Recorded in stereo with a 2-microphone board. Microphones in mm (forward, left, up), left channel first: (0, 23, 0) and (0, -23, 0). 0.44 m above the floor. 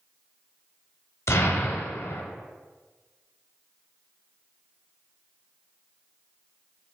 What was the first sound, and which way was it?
An explosion, 85° left.